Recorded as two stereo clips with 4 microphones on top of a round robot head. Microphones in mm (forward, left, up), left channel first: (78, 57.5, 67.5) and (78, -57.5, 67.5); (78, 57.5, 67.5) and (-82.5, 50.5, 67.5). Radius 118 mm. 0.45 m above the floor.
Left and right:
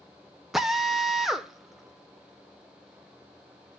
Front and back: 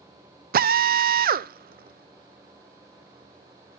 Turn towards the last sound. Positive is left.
turn(degrees=-175)